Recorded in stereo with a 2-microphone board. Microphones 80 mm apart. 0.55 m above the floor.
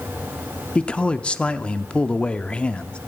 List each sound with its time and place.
0.8 s a man speaking: 15° left (ahead or behind), 0.7 m